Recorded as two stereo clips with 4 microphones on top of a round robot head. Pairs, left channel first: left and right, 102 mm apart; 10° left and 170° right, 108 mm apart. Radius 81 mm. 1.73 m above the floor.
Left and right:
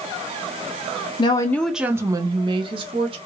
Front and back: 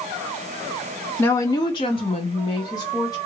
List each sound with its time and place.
1.2 s a woman speaking: 70° left, 0.5 m; by 3.2 s 60° right, 1.2 m